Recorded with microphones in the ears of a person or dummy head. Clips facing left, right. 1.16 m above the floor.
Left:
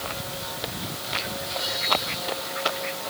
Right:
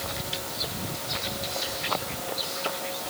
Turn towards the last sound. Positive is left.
No sound to turn to.